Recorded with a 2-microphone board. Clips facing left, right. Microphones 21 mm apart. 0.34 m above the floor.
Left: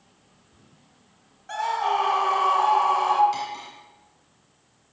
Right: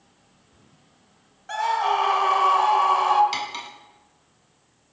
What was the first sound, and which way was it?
A scream, 20° right (ahead or behind).